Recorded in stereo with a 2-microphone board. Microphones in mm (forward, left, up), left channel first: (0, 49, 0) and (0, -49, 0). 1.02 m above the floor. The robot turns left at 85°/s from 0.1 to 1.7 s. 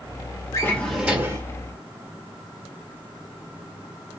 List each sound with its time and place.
0.5 s a drawer: 35° left, 1.3 m; by 1.4 s 45° right, 1.3 m